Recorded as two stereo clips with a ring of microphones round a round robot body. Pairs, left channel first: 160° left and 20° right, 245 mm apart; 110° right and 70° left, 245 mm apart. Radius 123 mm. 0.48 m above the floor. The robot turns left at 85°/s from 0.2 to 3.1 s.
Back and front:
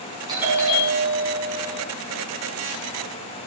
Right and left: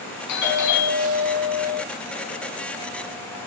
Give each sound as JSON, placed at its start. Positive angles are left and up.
{"t": 0.3, "sound": "a doorbell", "azimuth_deg": -95, "distance_m": 5.0}